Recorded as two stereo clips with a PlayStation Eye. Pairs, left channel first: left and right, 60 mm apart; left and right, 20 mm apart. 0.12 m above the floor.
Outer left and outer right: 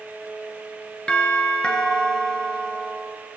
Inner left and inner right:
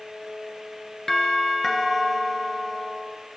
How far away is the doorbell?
About 2 m.